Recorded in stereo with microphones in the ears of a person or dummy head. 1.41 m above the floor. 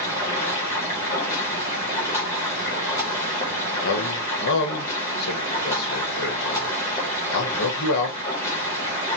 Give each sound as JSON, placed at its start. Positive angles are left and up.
{"t": 0.0, "sound": "running water", "side_deg": 10, "distance_m": 0.8}
{"t": 3.8, "sound": "a man speaking", "side_deg": 60, "distance_m": 1.2}